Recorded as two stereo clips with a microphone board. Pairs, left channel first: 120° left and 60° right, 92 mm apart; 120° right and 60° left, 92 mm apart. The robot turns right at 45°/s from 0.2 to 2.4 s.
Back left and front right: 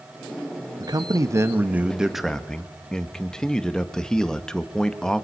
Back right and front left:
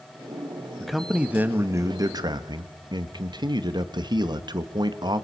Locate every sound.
0.8 s a man speaking: 35° right, 1.4 m; by 5.2 s 40° left, 1.4 m